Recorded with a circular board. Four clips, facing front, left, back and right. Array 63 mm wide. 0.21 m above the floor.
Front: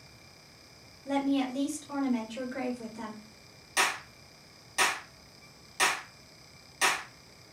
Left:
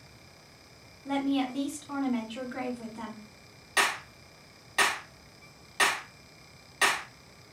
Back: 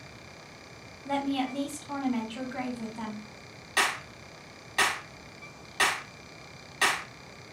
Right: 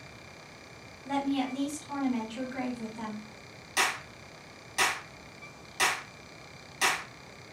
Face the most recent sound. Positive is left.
turn(degrees=135)